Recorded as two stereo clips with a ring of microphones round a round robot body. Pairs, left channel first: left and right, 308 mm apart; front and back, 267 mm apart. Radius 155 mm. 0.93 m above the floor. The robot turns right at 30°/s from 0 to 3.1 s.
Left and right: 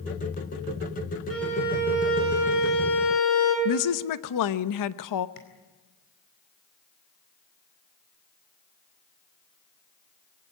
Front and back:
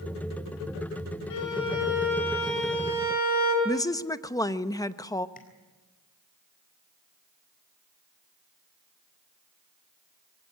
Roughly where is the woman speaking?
Left.